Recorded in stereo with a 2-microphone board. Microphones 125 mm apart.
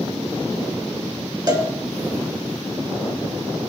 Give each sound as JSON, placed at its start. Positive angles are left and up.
{"t": 1.5, "sound": "a cowbell", "side_deg": -35, "distance_m": 2.0}